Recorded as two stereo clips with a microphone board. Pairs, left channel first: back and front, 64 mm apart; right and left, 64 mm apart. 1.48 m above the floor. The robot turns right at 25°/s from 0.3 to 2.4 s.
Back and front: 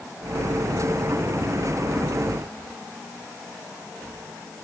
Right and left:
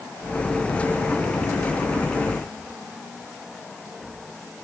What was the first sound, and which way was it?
Only background noise.